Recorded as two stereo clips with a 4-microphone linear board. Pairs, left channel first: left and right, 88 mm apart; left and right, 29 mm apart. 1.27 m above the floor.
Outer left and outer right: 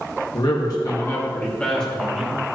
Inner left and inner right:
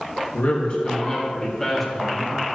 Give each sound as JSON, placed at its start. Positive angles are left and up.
{"t": 0.3, "sound": "a man speaking", "side_deg": 60, "distance_m": 2.0}